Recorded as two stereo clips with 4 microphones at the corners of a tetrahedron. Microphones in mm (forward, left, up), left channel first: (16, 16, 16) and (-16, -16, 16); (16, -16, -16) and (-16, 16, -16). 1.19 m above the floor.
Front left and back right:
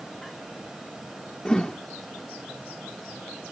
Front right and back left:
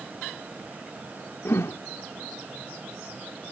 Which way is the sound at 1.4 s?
30° right.